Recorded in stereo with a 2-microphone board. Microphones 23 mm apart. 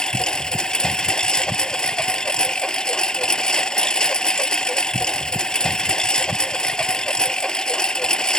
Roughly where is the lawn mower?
Left.